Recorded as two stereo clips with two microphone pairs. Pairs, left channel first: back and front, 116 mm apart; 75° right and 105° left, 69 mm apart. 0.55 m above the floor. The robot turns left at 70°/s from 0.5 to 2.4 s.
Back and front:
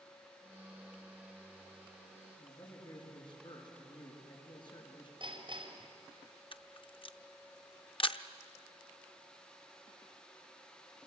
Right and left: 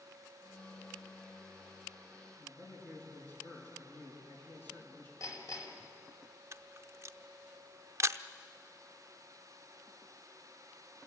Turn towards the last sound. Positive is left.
turn(degrees=145)